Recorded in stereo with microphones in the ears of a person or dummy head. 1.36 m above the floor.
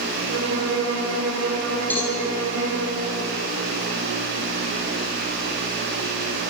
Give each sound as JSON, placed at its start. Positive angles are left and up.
{"t": 0.3, "sound": "a violin", "side_deg": -85, "distance_m": 6.5}
{"t": 1.9, "sound": "a cowbell", "side_deg": 5, "distance_m": 4.5}